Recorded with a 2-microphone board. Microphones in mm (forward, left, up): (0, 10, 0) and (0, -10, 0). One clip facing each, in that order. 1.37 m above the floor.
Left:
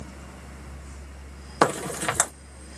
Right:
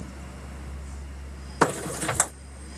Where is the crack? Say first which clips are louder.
Left 1 dB; 45° left (ahead or behind), 1.8 m.